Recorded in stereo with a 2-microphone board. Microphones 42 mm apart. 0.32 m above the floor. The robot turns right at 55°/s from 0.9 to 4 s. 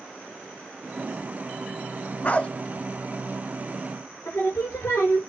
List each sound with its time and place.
2.2 s a dog barking: 35° left (ahead or behind), 0.8 m; by 2.5 s 20° left (ahead or behind), 0.8 m
4.2 s singing: 70° left (ahead or behind), 6 m